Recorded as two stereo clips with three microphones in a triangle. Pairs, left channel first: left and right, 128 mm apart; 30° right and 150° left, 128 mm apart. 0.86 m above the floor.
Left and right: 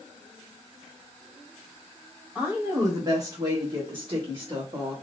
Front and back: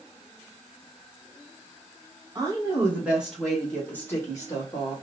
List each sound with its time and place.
2.4 s a woman speaking: 160° right, 1.2 m; by 5.0 s 70° right, 1.3 m